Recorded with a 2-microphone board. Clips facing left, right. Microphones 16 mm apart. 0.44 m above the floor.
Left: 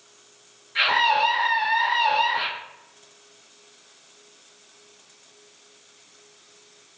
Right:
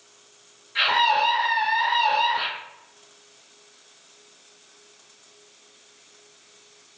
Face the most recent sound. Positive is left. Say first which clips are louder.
# even
turn(degrees=5)  # may be behind; listen again after turning